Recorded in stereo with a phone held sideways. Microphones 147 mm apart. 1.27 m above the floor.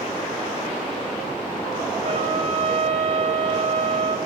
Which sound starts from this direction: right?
A trumpet, at 2.0 s.